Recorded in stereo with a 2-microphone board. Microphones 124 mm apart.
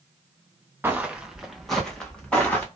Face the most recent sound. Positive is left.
turn(degrees=10)  # may be behind; listen again after turning